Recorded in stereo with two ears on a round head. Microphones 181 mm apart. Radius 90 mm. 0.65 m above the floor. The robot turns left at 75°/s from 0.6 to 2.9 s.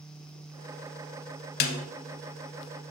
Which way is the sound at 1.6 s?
50° left (ahead or behind).